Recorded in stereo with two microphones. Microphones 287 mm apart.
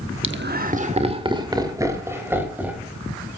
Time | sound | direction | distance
0.2 | laughter | 45° right (ahead or behind) | 1.1 m